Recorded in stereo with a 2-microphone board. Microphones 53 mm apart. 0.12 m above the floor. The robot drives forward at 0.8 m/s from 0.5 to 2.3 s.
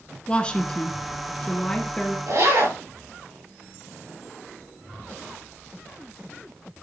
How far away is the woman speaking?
About 1.1 m.